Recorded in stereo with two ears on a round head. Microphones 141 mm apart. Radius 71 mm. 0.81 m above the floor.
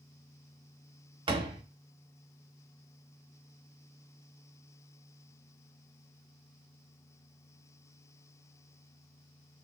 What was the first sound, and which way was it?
A door slam, 30° right (ahead or behind).